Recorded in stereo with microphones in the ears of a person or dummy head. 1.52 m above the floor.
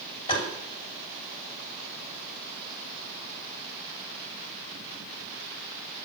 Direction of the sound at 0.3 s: 25° left (ahead or behind).